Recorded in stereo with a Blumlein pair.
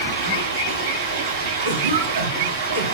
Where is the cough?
60° right, 0.6 m.